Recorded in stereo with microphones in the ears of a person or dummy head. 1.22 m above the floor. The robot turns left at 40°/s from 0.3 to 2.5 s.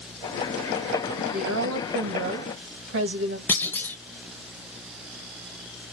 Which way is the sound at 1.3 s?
65° right.